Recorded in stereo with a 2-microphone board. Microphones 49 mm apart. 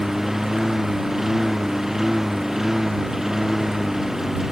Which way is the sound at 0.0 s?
10° right (ahead or behind).